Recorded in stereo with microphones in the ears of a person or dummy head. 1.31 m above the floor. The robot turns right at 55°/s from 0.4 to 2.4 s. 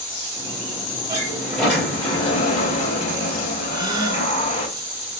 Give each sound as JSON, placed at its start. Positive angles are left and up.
{"t": 1.1, "sound": "a sliding door", "azimuth_deg": -25, "distance_m": 2.5}
{"t": 3.7, "sound": "a gasp", "side_deg": -20, "distance_m": 1.4}